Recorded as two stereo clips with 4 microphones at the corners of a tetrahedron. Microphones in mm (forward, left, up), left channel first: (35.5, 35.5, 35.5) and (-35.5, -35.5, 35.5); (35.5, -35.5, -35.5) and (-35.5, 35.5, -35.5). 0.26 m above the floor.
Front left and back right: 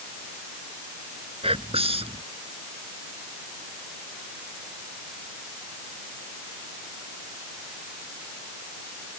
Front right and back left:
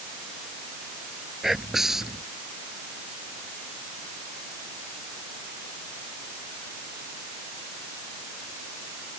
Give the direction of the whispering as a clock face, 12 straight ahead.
5 o'clock.